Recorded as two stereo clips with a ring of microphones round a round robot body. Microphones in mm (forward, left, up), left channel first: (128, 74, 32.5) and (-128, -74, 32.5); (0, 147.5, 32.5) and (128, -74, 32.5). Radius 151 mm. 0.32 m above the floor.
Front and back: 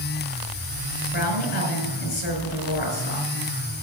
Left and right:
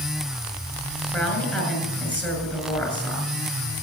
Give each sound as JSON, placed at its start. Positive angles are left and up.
{"t": 1.1, "sound": "a woman speaking", "azimuth_deg": 35, "distance_m": 5.0}